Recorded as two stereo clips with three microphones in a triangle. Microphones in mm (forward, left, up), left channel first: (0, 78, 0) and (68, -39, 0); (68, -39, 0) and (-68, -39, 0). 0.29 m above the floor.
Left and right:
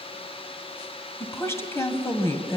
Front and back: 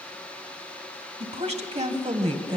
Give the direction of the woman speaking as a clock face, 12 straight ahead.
6 o'clock.